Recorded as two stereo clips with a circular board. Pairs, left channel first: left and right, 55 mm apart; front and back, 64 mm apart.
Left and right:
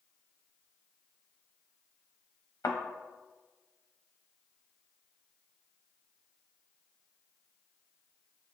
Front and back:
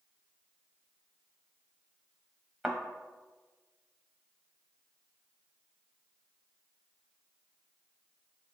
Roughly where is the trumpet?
I don't hear a trumpet.